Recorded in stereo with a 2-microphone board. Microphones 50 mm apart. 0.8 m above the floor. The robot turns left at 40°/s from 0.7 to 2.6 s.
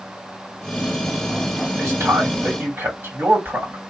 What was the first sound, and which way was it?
A man speaking, 95° right.